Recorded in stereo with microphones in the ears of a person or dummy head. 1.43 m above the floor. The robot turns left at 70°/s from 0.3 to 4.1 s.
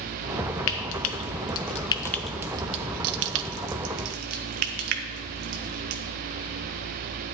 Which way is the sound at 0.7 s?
65° left (ahead or behind).